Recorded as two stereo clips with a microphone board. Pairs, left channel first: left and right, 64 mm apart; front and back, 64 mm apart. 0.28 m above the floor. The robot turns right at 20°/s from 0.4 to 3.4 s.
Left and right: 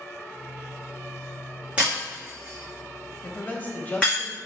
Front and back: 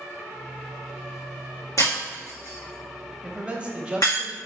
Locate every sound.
1.8 s breaking glass: 20° right, 3 m; by 4.2 s 15° left, 3 m
3.2 s a man speaking: 120° left, 1.2 m; by 4.4 s 125° left, 1.2 m